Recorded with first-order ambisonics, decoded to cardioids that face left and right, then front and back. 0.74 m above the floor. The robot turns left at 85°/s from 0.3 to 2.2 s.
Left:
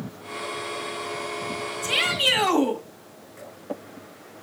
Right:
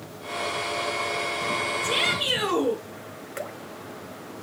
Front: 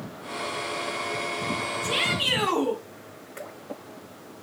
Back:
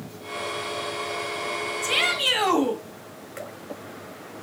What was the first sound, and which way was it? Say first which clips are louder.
A shout: left 5 dB, back 3 dB; 160° left.